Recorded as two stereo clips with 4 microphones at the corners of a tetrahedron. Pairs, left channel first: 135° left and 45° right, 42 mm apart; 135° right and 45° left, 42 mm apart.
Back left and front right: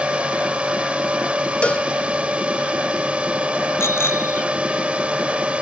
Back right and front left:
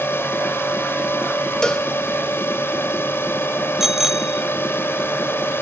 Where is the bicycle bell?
125° left.